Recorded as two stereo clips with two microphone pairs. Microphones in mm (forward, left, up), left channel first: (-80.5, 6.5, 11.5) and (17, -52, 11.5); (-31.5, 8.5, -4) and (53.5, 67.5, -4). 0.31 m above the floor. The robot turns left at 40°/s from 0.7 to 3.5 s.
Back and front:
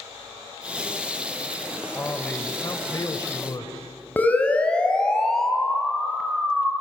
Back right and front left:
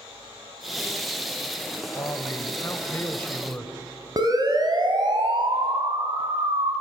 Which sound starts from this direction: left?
A siren, at 4.2 s.